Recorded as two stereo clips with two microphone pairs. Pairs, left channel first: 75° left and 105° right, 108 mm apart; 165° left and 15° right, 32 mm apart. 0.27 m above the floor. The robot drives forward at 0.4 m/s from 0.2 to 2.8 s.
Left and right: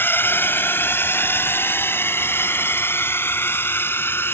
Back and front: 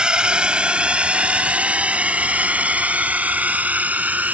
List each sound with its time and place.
0.0 s a drone: 20° left; by 4.3 s 10° left